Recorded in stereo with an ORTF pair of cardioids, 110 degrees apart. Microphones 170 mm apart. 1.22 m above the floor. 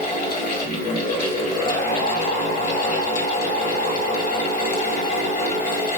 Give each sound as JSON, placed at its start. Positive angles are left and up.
{"t": 0.0, "sound": "a fan", "azimuth_deg": 55, "distance_m": 1.1}